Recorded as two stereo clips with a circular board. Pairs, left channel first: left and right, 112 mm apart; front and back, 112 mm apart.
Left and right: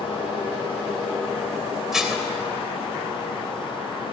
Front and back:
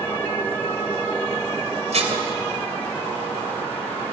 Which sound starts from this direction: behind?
Dishes clattering, at 1.9 s.